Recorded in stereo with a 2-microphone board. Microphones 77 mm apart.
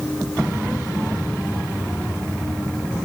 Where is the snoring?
No snoring in this recording.